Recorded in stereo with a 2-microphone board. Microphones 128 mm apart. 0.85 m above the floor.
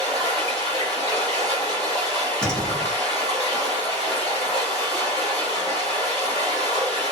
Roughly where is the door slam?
Centre.